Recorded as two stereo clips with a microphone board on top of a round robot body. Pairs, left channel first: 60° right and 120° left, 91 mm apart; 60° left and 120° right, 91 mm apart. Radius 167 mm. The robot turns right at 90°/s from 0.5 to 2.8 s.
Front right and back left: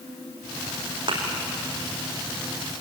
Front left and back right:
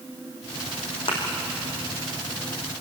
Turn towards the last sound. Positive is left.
turn(degrees=-115)